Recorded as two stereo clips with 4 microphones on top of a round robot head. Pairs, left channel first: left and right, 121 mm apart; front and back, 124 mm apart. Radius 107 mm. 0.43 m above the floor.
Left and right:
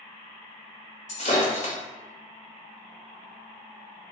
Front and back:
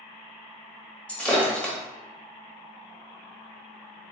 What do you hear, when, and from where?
1.1 s breaking glass: 80° left, 1.3 m